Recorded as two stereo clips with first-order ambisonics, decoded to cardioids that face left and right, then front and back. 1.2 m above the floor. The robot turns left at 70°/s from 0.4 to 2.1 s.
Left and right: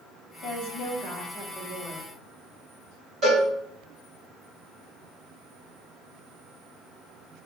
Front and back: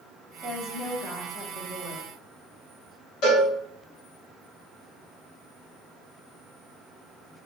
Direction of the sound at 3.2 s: 30° right.